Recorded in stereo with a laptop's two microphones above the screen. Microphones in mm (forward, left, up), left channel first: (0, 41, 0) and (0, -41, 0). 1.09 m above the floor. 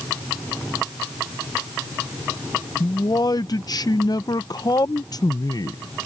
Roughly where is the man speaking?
Left.